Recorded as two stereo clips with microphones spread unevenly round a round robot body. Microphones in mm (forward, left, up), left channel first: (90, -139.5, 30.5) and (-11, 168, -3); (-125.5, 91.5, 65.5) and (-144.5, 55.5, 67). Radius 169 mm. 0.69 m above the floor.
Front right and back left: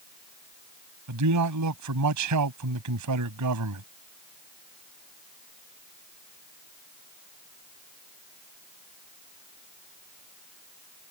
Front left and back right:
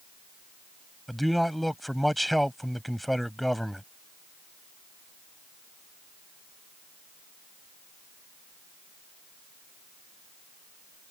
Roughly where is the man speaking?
Behind left.